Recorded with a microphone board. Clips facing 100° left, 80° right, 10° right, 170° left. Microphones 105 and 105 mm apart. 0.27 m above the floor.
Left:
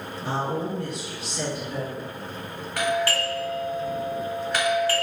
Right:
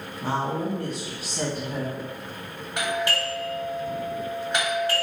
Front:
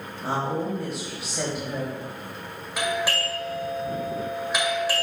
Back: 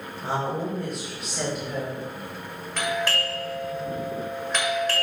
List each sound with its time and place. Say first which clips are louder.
0.2 s a woman speaking: right 1 dB, front 1 dB; 95° right, 1.5 m
2.8 s a doorbell: left 3 dB, even; 75° right, 1.9 m